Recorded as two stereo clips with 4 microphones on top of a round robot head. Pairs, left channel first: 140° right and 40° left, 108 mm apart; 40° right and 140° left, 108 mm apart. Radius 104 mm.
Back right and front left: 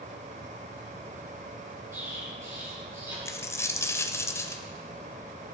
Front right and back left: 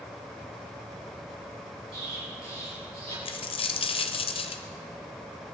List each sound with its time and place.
1.9 s an explosion: 105° left, 5.5 m
3.2 s a dropped coin: 75° right, 1.0 m